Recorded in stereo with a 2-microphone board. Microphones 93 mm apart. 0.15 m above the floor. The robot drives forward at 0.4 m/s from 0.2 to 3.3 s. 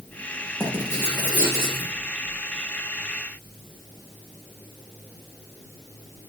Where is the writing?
20° left (ahead or behind), 4.5 m; by 1.9 s 25° left (ahead or behind), 4 m.